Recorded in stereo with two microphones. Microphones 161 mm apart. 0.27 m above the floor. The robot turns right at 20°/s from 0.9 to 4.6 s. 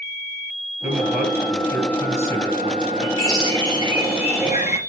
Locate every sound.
0.8 s a man speaking: 10° right, 4.5 m; by 3.1 s 30° left, 4.5 m
3.2 s a bird: 20° left (ahead or behind), 4.5 m; by 4.8 s 50° left (ahead or behind), 4.5 m